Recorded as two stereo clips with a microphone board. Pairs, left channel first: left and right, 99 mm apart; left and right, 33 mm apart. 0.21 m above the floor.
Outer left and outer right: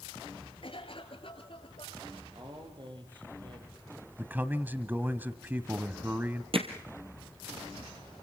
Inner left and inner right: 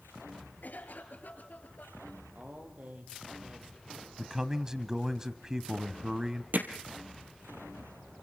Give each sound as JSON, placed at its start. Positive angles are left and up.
{"t": 0.6, "sound": "a cough", "side_deg": 65, "distance_m": 3.5}
{"t": 2.4, "sound": "a man speaking", "side_deg": -50, "distance_m": 5.5}
{"t": 4.2, "sound": "a man speaking", "side_deg": -20, "distance_m": 1.0}
{"t": 6.5, "sound": "hammering", "side_deg": -65, "distance_m": 2.5}